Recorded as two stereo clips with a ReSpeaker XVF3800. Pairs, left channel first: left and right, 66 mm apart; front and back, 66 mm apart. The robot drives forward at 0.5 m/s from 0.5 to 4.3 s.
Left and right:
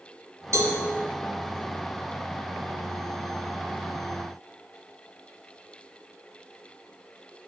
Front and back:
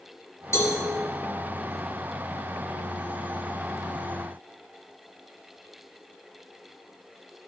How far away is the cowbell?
About 1.3 m.